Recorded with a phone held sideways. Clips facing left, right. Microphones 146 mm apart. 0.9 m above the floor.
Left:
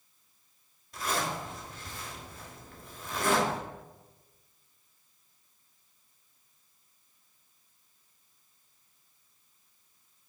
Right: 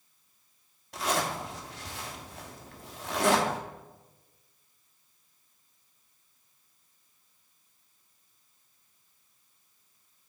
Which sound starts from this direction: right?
A zipper, at 0.9 s.